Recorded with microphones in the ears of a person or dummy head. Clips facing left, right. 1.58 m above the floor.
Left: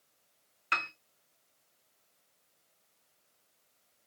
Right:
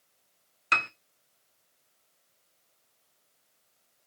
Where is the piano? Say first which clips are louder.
Right 5 dB; 50° right (ahead or behind), 0.9 m.